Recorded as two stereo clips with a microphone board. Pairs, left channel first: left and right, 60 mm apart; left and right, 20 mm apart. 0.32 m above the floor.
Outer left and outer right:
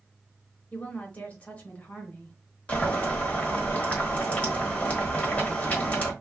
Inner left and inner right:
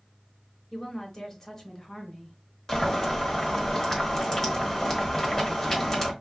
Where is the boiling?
25° left (ahead or behind), 1.2 m.